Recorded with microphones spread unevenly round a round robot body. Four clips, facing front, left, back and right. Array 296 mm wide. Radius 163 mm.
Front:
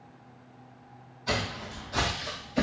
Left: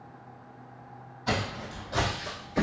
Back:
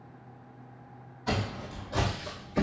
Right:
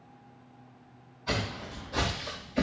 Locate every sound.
1.3 s footsteps: 120° left, 2.5 m; by 2.6 s 140° left, 2.5 m